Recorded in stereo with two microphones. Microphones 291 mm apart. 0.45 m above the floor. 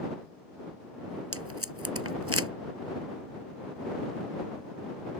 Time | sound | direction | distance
1.3 | tape being pulled | 50° right (ahead or behind) | ?